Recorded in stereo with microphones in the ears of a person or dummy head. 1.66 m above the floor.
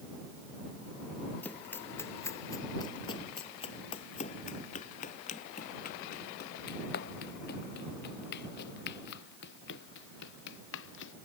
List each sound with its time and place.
1.4 s running footsteps: 10° left (ahead or behind); by 11.1 s 70° left (ahead or behind)